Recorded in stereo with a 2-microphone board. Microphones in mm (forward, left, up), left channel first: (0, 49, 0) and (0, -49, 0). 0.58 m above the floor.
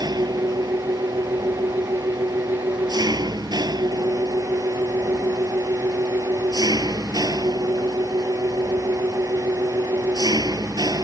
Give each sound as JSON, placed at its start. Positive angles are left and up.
{"t": 0.0, "sound": "an engine running", "side_deg": -45}